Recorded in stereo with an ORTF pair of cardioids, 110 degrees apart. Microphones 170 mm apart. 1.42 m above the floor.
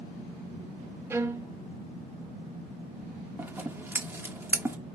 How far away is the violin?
About 0.9 m.